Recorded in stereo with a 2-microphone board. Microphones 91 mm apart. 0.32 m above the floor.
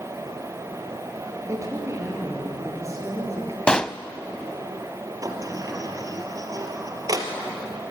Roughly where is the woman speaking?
Right.